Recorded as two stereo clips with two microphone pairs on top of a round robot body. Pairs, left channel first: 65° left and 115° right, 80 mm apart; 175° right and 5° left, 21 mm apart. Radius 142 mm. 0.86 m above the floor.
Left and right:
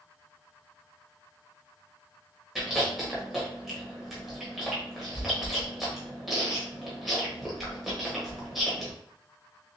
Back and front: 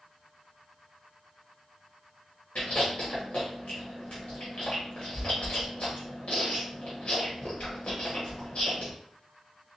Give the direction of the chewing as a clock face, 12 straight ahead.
7 o'clock.